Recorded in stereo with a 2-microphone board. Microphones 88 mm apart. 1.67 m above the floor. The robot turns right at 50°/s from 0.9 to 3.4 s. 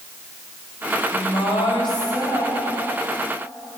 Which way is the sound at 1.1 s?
80° left.